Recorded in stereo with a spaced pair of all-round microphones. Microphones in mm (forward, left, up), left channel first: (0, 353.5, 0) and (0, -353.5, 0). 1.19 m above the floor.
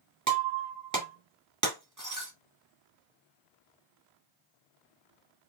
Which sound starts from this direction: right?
Breaking glass, at 0.3 s.